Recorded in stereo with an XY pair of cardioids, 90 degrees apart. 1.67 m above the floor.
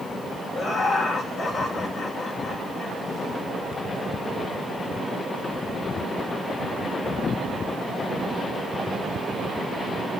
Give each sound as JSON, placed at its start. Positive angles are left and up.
{"t": 0.6, "sound": "laughter", "azimuth_deg": 65, "distance_m": 6.0}